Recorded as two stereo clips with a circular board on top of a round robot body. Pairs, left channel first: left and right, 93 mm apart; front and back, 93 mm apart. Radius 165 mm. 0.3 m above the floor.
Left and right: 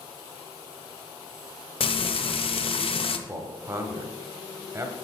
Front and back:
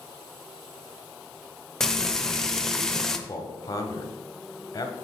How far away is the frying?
About 0.7 m.